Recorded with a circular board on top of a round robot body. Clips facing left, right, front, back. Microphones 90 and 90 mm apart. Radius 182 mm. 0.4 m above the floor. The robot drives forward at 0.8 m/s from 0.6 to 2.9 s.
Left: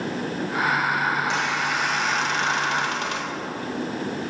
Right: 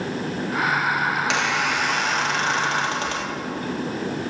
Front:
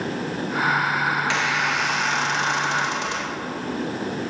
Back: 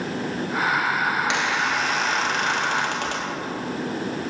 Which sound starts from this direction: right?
A squeak, at 1.1 s.